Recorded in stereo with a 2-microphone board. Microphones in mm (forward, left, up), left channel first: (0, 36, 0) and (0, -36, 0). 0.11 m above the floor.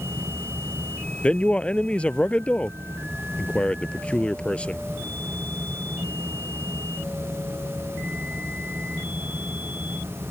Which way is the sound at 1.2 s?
15° left (ahead or behind).